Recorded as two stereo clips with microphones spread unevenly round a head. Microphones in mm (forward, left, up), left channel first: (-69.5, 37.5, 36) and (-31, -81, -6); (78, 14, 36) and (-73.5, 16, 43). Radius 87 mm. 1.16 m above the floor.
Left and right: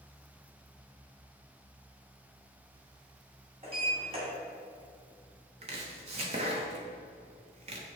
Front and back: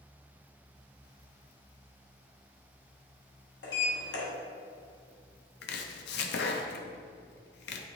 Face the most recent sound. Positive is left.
turn(degrees=-20)